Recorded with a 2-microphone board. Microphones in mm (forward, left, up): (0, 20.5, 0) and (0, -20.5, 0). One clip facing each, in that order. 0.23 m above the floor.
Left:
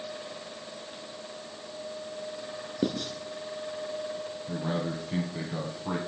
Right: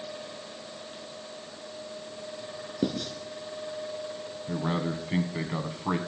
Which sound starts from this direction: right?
A man speaking, at 4.5 s.